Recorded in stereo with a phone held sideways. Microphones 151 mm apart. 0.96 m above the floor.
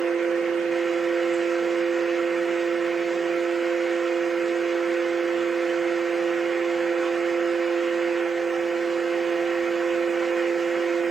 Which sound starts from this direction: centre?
A fan, at 0.0 s.